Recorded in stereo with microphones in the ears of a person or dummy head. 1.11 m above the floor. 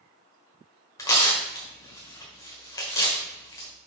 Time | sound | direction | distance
1.0 | tearing paper | 20° left (ahead or behind) | 1.5 m